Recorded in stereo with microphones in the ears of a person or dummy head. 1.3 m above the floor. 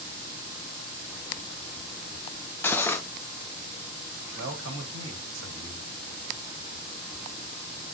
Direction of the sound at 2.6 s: 10° left (ahead or behind).